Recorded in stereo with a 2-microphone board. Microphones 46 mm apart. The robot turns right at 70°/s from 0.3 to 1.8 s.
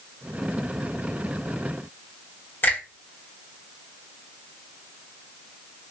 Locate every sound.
2.6 s a finger snap: 50° left (ahead or behind), 1.5 m